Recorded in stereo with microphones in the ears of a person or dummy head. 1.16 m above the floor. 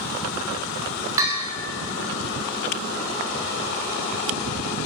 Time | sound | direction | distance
1.2 | a bell | 15° right (ahead or behind) | 1.5 m